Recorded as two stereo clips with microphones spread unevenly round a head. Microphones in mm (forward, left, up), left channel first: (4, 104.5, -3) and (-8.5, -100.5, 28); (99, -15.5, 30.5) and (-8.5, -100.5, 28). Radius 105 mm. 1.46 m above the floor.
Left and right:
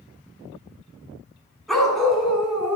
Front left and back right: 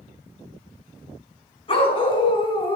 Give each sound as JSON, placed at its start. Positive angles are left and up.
{"t": 1.7, "sound": "a dog barking", "azimuth_deg": -5, "distance_m": 4.0}